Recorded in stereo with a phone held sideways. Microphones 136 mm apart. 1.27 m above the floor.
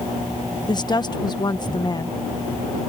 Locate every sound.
0.7 s a woman speaking: 30° left (ahead or behind)